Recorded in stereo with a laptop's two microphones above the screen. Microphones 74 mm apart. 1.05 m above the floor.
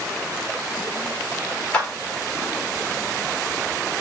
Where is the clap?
15° left (ahead or behind), 1.4 m.